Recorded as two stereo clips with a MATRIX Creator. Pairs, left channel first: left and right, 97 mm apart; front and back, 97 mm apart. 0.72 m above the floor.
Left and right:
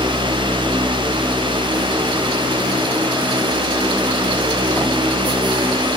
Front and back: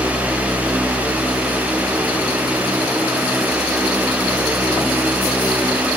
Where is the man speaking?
I don't hear a man speaking.